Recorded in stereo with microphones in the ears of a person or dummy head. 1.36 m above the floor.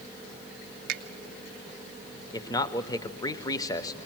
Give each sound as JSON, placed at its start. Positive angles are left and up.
{"t": 0.9, "sound": "a finger snap", "side_deg": -65, "distance_m": 1.2}
{"t": 2.3, "sound": "a man speaking", "side_deg": 25, "distance_m": 0.7}